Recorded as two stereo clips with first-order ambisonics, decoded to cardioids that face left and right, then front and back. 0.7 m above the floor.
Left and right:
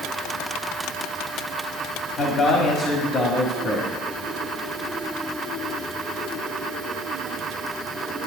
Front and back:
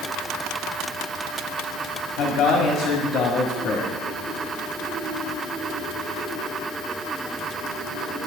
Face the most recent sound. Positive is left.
turn(degrees=40)